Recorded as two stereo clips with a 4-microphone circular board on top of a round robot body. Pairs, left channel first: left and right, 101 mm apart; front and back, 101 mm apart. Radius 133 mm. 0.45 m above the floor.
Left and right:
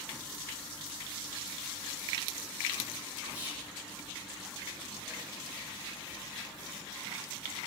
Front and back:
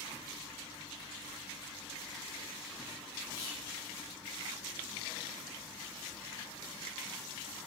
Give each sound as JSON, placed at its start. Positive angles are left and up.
{"t": 3.3, "sound": "whispering", "azimuth_deg": -25, "distance_m": 1.1}